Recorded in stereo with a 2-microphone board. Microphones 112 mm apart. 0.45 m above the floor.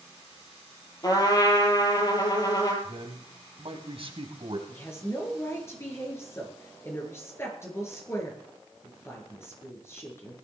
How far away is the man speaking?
About 3 m.